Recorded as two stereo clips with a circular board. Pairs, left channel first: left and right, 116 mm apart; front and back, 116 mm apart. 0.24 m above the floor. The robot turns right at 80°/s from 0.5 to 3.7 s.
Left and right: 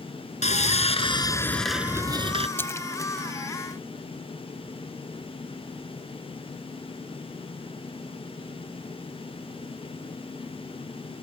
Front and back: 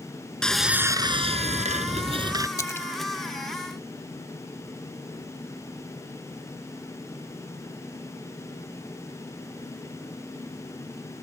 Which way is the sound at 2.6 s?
35° left.